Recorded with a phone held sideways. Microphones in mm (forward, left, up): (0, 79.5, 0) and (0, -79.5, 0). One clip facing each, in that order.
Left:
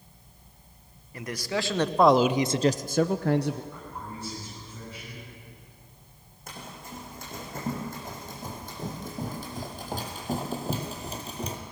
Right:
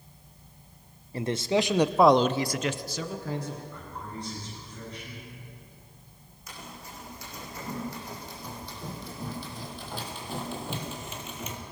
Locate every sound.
1.1 s a man speaking: 30° right (ahead or behind), 1.0 m; by 3.6 s 75° left (ahead or behind), 0.8 m
3.7 s a man speaking: 20° left (ahead or behind), 9 m
6.5 s running footsteps: 50° left (ahead or behind), 5.5 m; by 11.6 s 35° left (ahead or behind), 2.5 m